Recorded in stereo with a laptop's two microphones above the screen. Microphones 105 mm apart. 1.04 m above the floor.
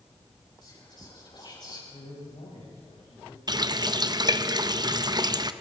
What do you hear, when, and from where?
0.6 s whispering: 45° left (ahead or behind), 8 m
1.9 s a man speaking: 85° left, 6.5 m
3.5 s a running tap: 40° right (ahead or behind), 0.5 m